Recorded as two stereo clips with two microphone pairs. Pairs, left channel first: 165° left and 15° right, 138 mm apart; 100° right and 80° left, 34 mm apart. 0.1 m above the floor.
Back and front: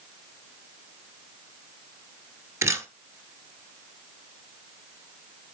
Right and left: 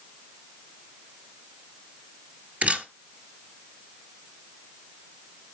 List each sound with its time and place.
2.6 s a camera shutter: 50° left, 1.0 m